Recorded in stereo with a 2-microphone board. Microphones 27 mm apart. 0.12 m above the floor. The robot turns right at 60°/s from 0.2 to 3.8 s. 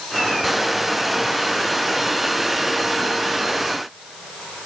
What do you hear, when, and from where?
Only background noise.